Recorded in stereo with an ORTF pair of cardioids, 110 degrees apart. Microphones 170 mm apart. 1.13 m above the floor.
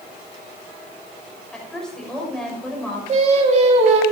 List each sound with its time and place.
1.5 s a woman speaking: 5° left, 6.5 m
3.1 s singing: 40° right, 3 m